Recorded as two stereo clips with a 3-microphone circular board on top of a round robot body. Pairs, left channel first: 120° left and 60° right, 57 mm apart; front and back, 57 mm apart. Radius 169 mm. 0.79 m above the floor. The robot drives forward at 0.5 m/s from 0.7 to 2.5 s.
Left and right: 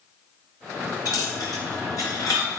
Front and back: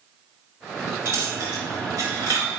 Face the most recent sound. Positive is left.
turn(degrees=145)